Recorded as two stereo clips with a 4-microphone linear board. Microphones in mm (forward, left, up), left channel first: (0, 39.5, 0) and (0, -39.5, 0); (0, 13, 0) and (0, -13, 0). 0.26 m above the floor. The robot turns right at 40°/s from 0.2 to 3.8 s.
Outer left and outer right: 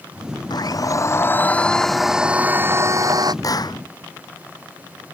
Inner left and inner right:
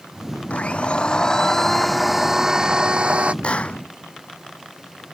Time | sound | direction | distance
0.5 | a blender | 120° left | ?
3.4 | a clap | 45° left (ahead or behind) | ?